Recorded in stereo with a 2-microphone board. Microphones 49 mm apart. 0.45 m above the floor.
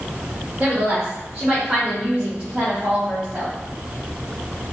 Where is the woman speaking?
30° right (ahead or behind), 0.9 m; by 3.5 s 25° right (ahead or behind), 2.5 m.